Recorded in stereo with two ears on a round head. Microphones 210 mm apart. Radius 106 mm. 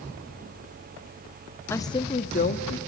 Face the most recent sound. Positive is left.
turn(degrees=40)  # may be behind; listen again after turning